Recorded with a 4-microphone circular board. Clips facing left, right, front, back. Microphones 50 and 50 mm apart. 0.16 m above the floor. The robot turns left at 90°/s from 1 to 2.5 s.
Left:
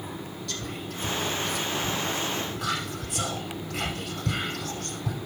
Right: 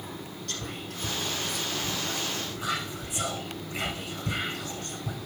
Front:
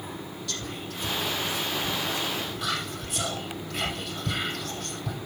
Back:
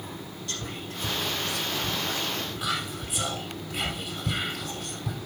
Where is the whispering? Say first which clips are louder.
Left 1 dB, back 1 dB; 120° right, 4.5 m; by 5.2 s 105° left, 4.5 m.